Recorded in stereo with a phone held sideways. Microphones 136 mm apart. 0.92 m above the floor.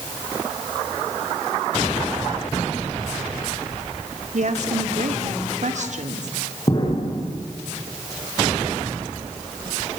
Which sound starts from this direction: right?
A woman speaking, at 4.3 s.